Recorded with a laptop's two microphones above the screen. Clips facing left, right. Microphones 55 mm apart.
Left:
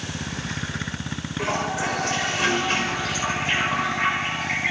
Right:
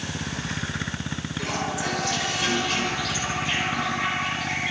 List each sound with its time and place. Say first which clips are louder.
1.4 s a toilet flushing: left 4 dB; 35° left (ahead or behind), 4 m